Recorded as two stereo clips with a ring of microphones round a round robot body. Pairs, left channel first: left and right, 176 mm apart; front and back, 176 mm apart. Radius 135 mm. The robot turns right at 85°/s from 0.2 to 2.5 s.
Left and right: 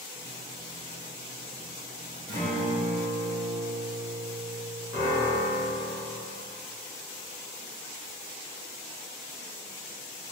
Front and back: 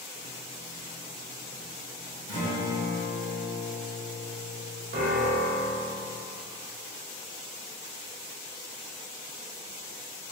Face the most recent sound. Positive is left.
turn(degrees=170)